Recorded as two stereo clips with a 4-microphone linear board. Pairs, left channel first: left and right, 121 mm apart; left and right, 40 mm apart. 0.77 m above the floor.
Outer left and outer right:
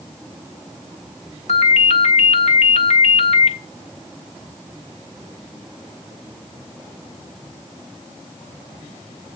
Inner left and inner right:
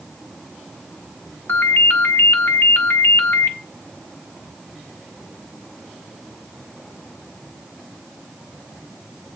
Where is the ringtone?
70° left (ahead or behind), 1.3 m.